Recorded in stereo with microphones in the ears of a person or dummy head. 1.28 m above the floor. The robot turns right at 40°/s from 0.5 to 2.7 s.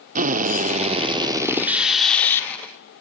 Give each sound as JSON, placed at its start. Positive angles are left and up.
{"t": 0.1, "sound": "a drill", "azimuth_deg": -60, "distance_m": 1.3}